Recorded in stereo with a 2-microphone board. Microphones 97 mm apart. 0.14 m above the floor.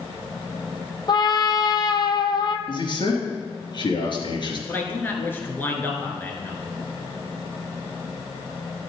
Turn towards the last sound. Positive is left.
turn(degrees=20)  # may be behind; listen again after turning